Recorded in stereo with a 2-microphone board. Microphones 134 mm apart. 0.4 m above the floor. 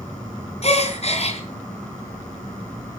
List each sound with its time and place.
0.6 s a gasp: 50° left (ahead or behind), 3.5 m